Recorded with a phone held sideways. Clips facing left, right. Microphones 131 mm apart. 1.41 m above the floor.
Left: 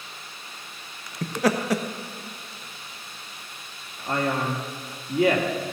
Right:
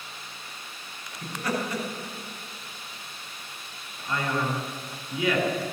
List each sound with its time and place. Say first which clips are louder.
1.2 s laughter: left 6 dB; 85° left, 1.4 m
4.1 s a man speaking: left 3 dB; 55° left (ahead or behind), 3 m